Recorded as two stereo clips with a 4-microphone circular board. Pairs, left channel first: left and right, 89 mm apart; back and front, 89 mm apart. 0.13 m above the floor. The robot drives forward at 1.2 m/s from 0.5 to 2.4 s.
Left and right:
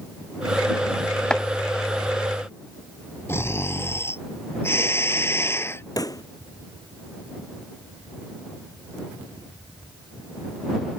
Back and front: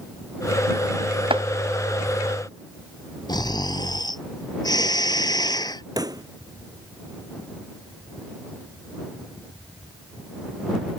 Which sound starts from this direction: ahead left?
A pop, at 6.0 s.